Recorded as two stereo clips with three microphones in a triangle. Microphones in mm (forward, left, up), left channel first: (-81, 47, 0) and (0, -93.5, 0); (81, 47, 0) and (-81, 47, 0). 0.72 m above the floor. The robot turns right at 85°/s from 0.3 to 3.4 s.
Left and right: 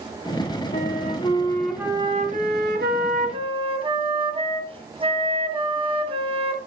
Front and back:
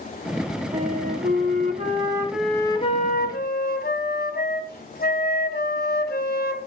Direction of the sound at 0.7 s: 130° left.